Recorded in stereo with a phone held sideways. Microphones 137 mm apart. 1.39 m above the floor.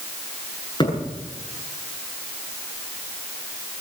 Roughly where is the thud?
Left.